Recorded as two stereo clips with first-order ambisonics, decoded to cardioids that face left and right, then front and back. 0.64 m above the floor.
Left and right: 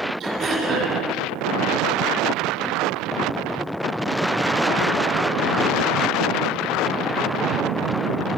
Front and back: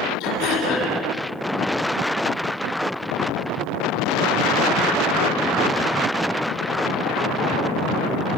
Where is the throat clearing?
35° right, 9.5 m.